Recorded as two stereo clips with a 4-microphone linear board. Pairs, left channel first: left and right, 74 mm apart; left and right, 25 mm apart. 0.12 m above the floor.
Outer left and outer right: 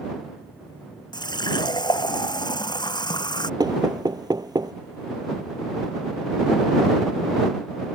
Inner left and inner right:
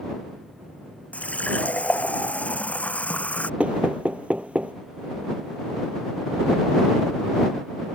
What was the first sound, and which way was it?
A running tap, 75° left (ahead or behind).